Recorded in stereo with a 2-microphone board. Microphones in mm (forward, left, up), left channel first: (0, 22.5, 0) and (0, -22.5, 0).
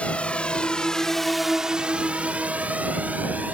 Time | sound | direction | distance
0.0 | a drone | 30° left (ahead or behind) | ?